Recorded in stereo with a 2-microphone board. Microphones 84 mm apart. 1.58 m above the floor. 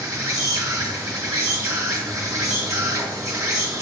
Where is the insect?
35° right (ahead or behind), 1.1 m.